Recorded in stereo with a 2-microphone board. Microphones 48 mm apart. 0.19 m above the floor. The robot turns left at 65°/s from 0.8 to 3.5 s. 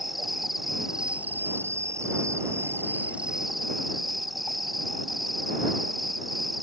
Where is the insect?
5° right; by 6.6 s straight behind.